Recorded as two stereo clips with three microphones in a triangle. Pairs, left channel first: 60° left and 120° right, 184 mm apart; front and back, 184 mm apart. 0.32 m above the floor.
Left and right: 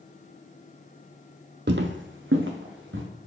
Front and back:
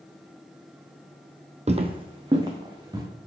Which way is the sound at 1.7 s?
130° right.